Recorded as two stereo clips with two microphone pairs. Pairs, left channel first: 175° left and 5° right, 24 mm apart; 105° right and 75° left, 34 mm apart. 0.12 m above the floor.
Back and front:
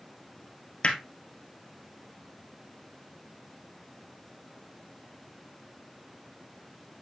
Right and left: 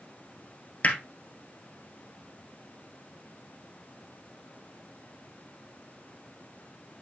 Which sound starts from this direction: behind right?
Hammering, at 0.8 s.